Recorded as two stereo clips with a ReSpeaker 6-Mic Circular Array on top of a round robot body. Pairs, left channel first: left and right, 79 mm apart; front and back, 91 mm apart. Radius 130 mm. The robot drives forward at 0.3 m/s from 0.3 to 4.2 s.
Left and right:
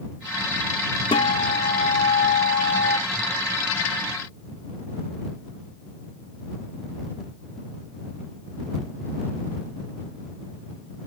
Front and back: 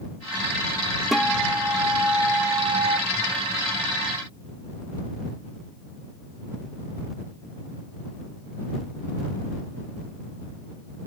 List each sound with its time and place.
1.1 s a guitar: 90° left, 0.8 m; by 3.0 s 130° left, 1.0 m